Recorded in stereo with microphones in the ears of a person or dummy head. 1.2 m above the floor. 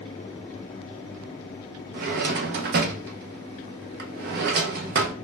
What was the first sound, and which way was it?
A drawer, 55° right (ahead or behind).